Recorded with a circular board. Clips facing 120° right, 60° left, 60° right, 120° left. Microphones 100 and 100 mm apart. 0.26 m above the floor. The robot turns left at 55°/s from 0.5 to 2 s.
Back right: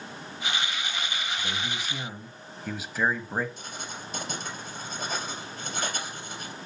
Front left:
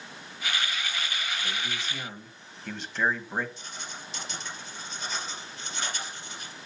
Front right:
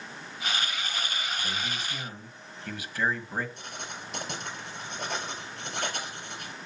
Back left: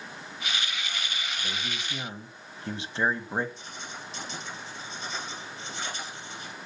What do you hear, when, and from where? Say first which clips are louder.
1.4 s a man speaking: back right 1 dB, front right 1 dB; 165° right, 1.3 m; by 3.5 s 160° left, 1.3 m
3.6 s writing: back right 3 dB, front right 1 dB; 85° right, 4 m